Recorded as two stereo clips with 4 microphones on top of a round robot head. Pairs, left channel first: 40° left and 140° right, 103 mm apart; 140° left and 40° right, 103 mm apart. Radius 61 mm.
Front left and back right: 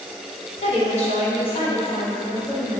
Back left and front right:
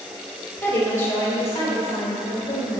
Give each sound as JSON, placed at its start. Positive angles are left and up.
{"t": 0.6, "sound": "a woman speaking", "azimuth_deg": 65, "distance_m": 2.5}